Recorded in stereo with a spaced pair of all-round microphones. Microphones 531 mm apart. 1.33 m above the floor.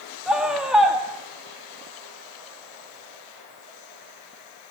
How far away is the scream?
About 2.5 m.